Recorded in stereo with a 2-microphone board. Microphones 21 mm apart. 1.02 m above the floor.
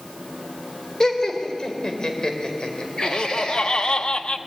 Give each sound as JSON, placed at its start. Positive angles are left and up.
{"t": 1.0, "sound": "laughter", "side_deg": 30, "distance_m": 4.0}
{"t": 3.0, "sound": "laughter", "side_deg": 50, "distance_m": 1.4}